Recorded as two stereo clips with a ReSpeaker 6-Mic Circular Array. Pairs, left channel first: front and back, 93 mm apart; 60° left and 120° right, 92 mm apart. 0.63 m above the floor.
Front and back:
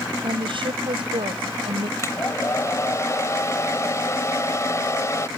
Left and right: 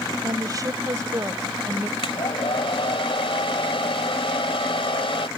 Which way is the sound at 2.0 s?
55° left.